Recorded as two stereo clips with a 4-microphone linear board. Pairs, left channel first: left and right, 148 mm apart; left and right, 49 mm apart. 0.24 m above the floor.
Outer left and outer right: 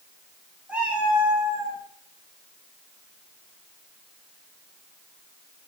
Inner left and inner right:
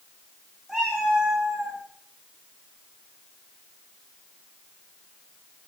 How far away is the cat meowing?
About 7.5 m.